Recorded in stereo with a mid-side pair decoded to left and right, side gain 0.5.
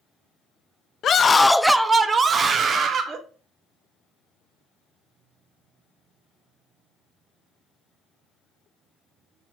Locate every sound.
1.0 s a scream: 50° left, 0.6 m; by 3.2 s 50° right, 1.9 m